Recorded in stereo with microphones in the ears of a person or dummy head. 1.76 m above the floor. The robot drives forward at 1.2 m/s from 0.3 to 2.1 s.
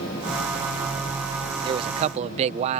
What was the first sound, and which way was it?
A man speaking, 30° right (ahead or behind).